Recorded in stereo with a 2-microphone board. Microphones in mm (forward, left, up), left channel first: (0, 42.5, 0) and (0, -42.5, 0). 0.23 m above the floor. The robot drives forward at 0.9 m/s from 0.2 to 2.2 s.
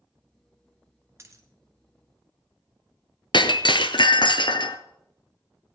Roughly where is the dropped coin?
Right.